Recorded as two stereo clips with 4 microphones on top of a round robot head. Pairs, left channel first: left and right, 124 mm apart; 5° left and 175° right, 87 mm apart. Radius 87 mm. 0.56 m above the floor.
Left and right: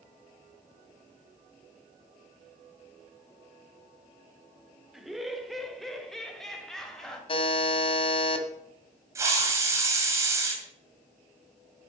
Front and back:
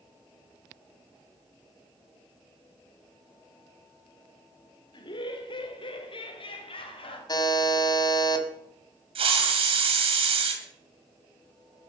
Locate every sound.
4.9 s laughter: 5° right, 2 m; by 7.2 s 5° left, 4 m
7.3 s a buzzer: 45° left, 2.0 m
9.2 s a hiss: 160° right, 2.5 m